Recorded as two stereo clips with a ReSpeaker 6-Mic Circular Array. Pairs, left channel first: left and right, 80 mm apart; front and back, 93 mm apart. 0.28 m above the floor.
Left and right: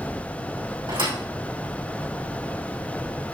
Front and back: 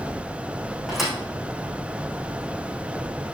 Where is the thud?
95° right, 5.5 m.